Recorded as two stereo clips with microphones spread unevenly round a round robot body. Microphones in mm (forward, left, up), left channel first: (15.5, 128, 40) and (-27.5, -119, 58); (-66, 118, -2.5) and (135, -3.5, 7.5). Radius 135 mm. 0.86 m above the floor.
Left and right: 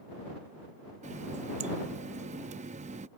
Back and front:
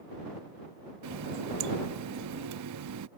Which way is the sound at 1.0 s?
35° right.